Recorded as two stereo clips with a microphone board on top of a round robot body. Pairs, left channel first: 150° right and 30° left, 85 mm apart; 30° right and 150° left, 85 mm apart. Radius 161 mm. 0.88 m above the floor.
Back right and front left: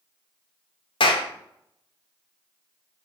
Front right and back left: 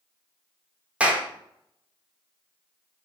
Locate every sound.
1.0 s a clap: 135° right, 2.0 m